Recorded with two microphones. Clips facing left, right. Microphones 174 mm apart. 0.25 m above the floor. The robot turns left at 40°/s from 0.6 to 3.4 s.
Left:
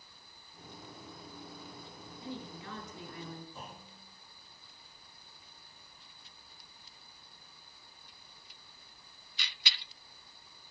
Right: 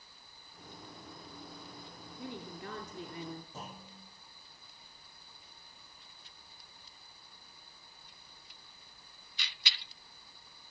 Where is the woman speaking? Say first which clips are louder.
Even; 90° right, 2.0 m; by 3.4 s 140° right, 2.0 m.